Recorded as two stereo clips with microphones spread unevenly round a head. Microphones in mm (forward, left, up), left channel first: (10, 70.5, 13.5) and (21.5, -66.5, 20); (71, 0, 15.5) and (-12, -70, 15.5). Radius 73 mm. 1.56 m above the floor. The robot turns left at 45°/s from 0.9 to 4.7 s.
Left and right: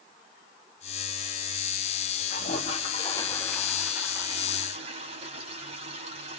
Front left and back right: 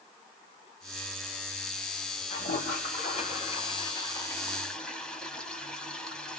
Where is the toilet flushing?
65° left, 3.5 m; by 6.4 s 40° right, 3.5 m.